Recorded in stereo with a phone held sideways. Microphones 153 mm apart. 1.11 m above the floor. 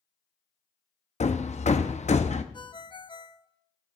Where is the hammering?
50° left (ahead or behind), 0.6 m.